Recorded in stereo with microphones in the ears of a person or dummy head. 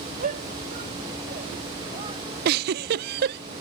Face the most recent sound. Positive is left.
turn(degrees=-55)  # may be behind; listen again after turning